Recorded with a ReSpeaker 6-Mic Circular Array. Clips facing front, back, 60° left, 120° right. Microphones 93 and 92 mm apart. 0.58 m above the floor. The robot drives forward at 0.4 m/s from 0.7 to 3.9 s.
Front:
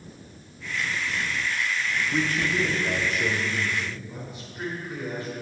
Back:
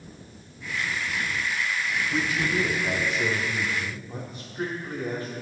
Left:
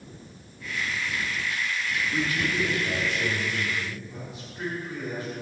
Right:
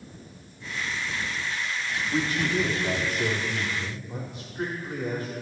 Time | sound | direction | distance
2.1 | a man speaking | 90° right | 0.8 m